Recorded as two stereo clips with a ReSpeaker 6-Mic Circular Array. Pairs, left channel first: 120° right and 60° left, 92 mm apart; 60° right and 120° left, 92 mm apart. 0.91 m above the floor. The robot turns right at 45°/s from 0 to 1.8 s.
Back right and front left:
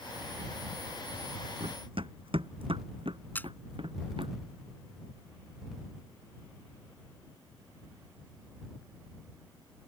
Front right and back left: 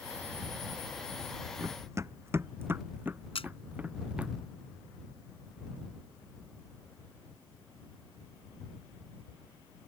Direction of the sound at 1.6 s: 55° left.